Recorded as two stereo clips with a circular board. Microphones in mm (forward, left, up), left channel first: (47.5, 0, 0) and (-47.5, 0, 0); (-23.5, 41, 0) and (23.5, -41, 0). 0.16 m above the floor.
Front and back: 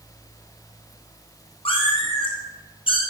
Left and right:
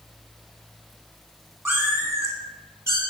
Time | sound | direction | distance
1.6 | a cat meowing | 5° left | 3 m